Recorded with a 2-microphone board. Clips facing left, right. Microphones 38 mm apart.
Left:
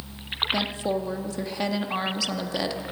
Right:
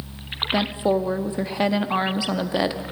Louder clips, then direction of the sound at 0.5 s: Right 7 dB; 25° right (ahead or behind).